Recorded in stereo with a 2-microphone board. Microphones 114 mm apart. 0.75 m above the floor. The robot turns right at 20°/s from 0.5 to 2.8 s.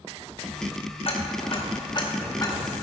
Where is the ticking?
55° left (ahead or behind), 1.0 m; by 2.6 s 30° left (ahead or behind), 1.0 m.